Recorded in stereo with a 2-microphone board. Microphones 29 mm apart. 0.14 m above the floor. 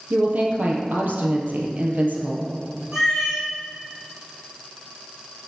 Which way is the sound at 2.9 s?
10° right (ahead or behind).